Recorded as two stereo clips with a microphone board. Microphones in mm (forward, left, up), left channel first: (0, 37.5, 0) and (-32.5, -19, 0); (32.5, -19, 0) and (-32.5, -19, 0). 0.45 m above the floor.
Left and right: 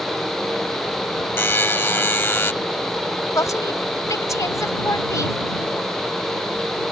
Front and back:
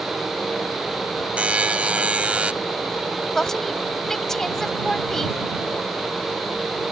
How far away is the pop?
No pop in this recording.